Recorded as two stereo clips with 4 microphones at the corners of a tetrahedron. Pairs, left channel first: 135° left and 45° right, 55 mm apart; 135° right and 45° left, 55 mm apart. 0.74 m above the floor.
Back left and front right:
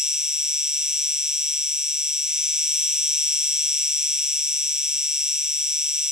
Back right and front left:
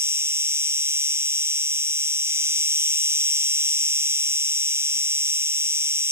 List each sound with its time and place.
0.0 s an insect: 30° left, 1.2 m